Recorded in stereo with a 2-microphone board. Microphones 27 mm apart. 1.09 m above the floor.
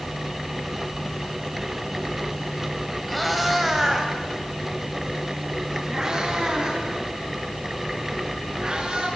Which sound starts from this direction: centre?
A cat meowing, at 3.1 s.